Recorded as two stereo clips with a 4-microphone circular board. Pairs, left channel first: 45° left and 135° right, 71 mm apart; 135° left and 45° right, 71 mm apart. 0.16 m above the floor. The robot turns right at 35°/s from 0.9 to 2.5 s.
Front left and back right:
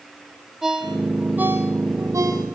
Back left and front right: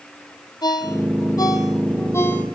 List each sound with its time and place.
0.6 s a ringtone: 140° left, 2.5 m; by 2.5 s 165° right, 2.5 m